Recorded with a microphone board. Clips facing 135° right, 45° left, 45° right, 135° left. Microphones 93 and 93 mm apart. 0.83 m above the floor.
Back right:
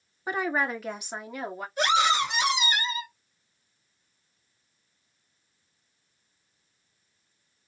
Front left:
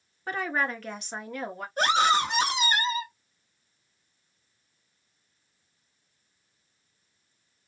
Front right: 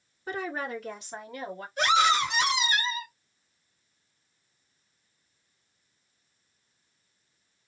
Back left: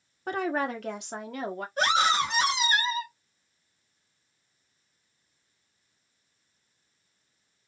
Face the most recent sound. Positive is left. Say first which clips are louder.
# front left 1 dB, front right 2 dB
turn(degrees=85)